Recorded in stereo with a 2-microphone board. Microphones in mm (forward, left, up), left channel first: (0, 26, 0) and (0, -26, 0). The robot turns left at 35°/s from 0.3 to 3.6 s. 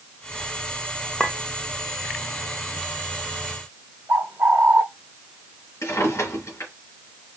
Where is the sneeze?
I don't hear a sneeze.